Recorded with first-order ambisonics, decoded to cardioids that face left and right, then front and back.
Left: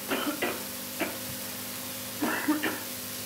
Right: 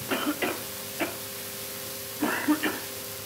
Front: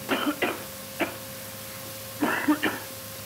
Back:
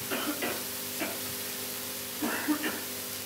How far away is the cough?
About 1.1 m.